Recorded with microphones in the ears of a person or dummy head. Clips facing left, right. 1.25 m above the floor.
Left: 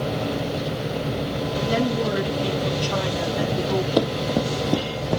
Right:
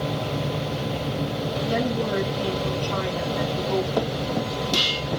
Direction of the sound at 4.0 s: 50° left (ahead or behind).